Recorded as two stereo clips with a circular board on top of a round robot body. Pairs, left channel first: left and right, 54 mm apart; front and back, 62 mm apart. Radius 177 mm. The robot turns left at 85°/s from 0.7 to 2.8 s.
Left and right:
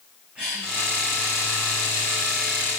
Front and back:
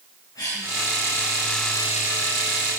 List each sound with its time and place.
0.3 s a cough: 20° right, 6.5 m